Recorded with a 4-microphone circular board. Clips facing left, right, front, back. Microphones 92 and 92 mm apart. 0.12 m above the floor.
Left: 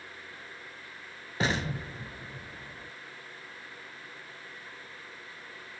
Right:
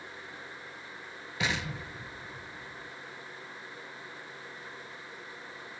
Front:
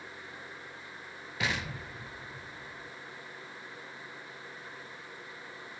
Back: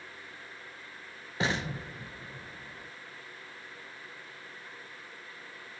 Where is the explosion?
130° left, 0.6 m.